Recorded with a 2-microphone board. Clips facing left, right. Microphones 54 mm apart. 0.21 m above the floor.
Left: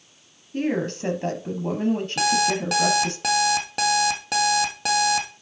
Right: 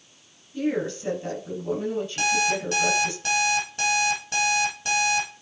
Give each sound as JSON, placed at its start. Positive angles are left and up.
{"t": 0.5, "sound": "a woman speaking", "side_deg": 65, "distance_m": 5.0}
{"t": 2.2, "sound": "an alarm clock", "side_deg": 80, "distance_m": 2.5}